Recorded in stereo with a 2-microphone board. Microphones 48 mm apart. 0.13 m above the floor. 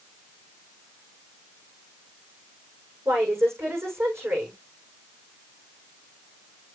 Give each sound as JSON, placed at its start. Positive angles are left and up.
{"t": 3.0, "sound": "a woman speaking", "side_deg": -70, "distance_m": 7.5}